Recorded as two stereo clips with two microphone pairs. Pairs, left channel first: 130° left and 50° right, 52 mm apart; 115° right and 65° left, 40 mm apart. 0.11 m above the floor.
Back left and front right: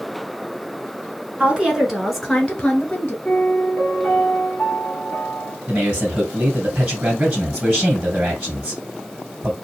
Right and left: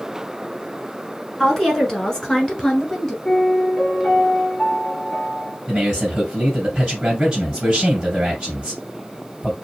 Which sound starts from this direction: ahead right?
A woman speaking, at 1.4 s.